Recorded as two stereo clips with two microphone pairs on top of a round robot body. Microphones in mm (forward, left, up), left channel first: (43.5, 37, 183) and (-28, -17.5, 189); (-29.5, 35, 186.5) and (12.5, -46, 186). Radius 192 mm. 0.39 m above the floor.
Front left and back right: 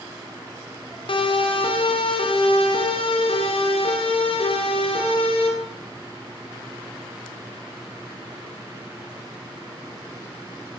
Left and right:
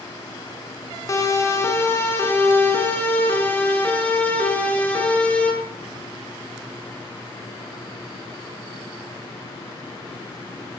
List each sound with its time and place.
1.1 s a siren: 60° left, 7.5 m; by 5.5 s 40° left, 12 m